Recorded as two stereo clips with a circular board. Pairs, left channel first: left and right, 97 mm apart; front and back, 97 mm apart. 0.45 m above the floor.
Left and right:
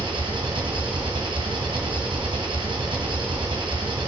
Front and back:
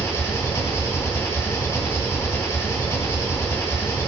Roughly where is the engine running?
Ahead right.